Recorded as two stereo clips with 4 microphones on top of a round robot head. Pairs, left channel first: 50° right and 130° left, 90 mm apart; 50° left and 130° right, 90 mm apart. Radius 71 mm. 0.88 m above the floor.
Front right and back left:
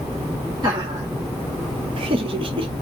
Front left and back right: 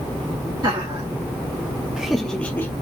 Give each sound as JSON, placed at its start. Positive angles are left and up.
{"t": 0.6, "sound": "laughter", "azimuth_deg": 180, "distance_m": 1.5}